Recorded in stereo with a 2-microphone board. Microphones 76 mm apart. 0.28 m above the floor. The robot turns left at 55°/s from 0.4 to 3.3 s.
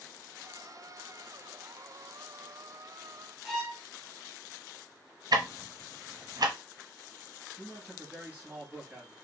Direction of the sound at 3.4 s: 5° right (ahead or behind).